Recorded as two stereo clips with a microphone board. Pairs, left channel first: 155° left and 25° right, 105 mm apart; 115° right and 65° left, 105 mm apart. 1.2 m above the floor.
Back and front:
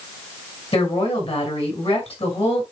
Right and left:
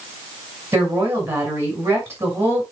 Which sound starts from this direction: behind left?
A woman speaking, at 0.7 s.